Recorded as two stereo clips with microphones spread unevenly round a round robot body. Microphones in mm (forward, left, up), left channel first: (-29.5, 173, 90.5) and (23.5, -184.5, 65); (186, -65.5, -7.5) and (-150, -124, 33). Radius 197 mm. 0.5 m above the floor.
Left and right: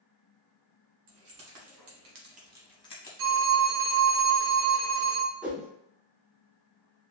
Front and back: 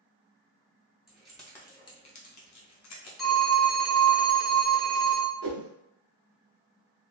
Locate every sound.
1.1 s keys jangling: 80° right, 1.6 m; by 3.1 s 35° left, 1.0 m
3.2 s a phone ringing: 75° right, 1.1 m
5.4 s a whoosh: 165° right, 0.6 m